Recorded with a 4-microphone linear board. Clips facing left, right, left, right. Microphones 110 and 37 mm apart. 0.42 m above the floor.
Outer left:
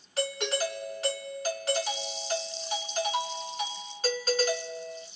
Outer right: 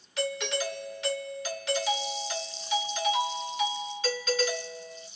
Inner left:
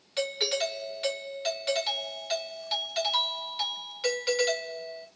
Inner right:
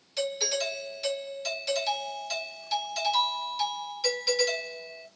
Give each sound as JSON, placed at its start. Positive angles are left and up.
{"t": 0.2, "sound": "a doorbell", "side_deg": 40, "distance_m": 1.4}